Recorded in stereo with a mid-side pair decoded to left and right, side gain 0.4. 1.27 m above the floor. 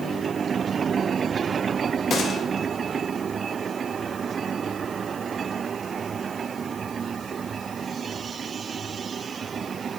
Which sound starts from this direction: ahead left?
A gunshot, at 2.1 s.